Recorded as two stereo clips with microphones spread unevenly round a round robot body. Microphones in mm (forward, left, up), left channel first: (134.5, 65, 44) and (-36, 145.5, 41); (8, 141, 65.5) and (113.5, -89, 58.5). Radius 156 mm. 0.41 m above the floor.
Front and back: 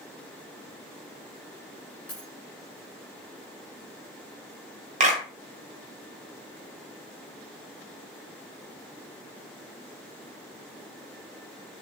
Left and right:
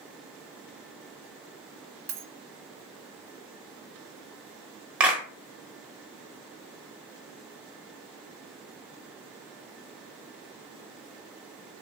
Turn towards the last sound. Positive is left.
turn(degrees=-150)